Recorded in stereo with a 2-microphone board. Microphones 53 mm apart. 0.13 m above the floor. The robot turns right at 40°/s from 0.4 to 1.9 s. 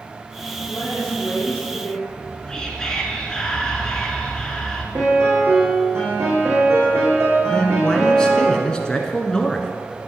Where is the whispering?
10° left (ahead or behind), 1.9 m.